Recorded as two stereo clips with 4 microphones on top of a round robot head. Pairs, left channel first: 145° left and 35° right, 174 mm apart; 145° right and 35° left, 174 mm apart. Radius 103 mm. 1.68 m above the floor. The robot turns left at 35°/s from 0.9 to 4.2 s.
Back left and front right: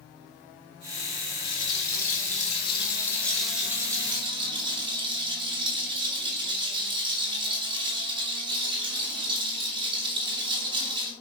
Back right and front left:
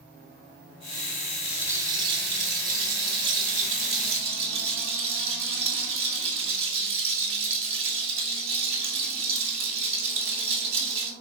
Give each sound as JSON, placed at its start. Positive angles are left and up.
{"t": 1.4, "sound": "a rattle", "azimuth_deg": 125, "distance_m": 2.5}